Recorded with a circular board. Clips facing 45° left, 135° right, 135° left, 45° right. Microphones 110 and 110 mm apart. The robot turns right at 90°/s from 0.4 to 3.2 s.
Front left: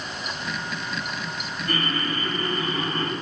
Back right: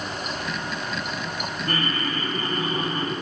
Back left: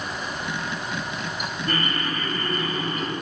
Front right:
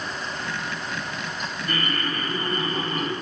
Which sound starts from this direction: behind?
Laughter, at 1.7 s.